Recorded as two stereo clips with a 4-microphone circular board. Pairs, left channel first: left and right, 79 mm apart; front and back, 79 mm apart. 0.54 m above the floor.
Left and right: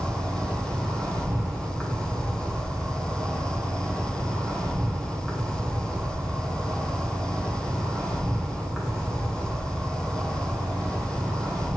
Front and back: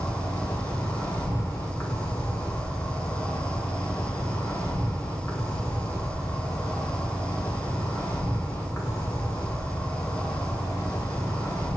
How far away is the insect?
About 0.9 m.